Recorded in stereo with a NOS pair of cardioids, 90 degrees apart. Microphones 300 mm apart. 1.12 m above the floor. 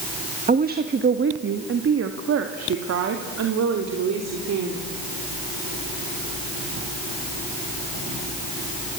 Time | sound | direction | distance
0.5 | a woman speaking | 30° right | 1.3 m